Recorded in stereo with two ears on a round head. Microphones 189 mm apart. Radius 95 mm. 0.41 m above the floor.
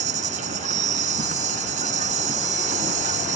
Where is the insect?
40° right (ahead or behind).